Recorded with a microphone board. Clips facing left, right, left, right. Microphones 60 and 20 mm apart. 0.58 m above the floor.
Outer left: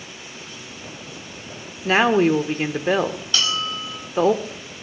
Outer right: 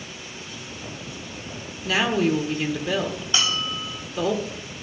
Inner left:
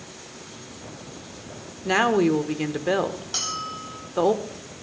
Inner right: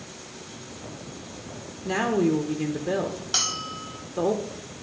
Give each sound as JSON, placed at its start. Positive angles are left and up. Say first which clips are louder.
{"t": 1.9, "sound": "a woman speaking", "louder": "outer left 5 dB, inner left 4 dB", "side_deg": 40, "distance_m": 1.2}
{"t": 3.3, "sound": "a bell", "louder": "even, inner right 4 dB", "side_deg": -20, "distance_m": 3.5}